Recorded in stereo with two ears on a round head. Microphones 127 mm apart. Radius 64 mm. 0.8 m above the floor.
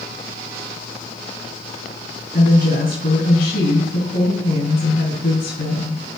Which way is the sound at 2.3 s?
60° left (ahead or behind).